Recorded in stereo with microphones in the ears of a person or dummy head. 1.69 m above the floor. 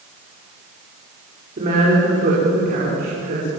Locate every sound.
1.6 s a woman speaking: 35° right (ahead or behind), 6 m; by 3.5 s 45° right (ahead or behind), 7 m